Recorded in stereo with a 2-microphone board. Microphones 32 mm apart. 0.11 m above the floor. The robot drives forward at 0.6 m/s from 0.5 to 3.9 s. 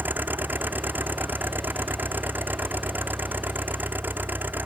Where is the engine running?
75° right (ahead or behind).